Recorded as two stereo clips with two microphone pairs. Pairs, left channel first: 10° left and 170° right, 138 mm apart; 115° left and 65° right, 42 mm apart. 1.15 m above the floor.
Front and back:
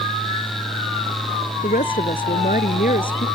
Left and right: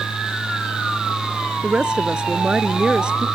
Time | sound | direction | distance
1.6 | a woman speaking | 5° left | ?